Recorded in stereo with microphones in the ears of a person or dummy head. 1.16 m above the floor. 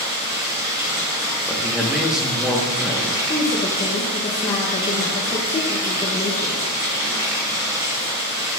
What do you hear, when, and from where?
0.0 s running water: 15° right (ahead or behind), 1.0 m
1.5 s a man speaking: 5° right (ahead or behind), 1.0 m
3.3 s a woman speaking: 25° left (ahead or behind), 0.6 m